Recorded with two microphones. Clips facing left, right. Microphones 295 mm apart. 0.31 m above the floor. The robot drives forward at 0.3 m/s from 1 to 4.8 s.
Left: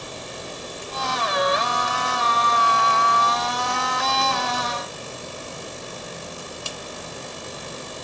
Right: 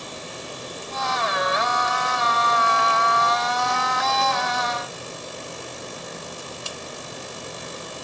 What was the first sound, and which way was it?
Only background noise.